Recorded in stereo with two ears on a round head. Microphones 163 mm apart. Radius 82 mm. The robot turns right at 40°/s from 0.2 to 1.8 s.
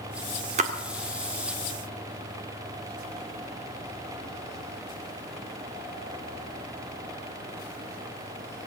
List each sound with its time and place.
0.6 s a splash: 40° right (ahead or behind), 1.7 m; by 0.7 s 35° right (ahead or behind), 1.7 m